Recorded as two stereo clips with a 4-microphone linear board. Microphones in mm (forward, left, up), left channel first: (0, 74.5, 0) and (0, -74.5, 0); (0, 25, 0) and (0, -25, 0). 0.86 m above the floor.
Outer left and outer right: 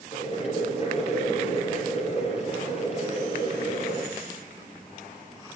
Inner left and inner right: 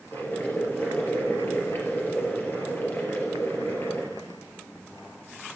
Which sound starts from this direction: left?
Boiling, at 0.1 s.